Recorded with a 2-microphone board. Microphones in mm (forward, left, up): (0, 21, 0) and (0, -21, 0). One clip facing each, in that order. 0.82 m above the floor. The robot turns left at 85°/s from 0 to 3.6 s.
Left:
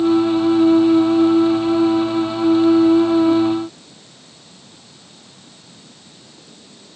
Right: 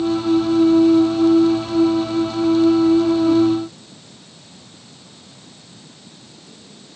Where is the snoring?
I don't hear snoring.